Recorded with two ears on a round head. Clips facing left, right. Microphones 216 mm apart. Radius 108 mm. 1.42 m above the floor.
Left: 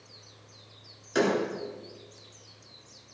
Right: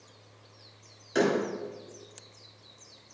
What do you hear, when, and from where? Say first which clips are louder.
1.1 s a door slam: even; centre (ahead or behind), 3 m